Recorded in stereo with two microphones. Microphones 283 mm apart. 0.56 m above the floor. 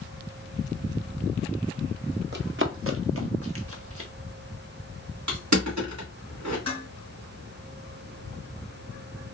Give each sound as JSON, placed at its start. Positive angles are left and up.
{"t": 2.3, "sound": "running footsteps", "side_deg": -40, "distance_m": 0.7}
{"t": 5.3, "sound": "crushing", "side_deg": -80, "distance_m": 2.0}
{"t": 6.7, "sound": "dishes clattering", "side_deg": -60, "distance_m": 2.5}